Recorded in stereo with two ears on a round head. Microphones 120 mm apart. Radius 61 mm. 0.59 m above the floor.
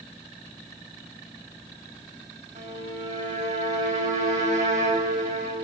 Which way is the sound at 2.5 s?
60° right (ahead or behind).